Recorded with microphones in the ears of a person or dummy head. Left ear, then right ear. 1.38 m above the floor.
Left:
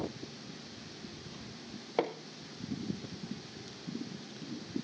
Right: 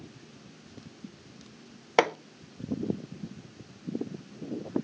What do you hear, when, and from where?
2.0 s hammering: 50° right (ahead or behind), 0.5 m